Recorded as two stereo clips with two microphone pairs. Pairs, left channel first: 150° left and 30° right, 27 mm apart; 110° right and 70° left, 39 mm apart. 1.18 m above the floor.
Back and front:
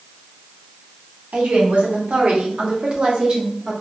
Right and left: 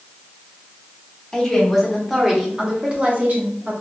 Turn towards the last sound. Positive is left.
turn(degrees=35)